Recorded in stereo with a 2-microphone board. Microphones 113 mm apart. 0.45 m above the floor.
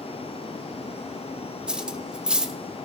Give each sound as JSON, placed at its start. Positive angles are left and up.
{"t": 1.7, "sound": "cutlery clinking", "side_deg": -10, "distance_m": 0.5}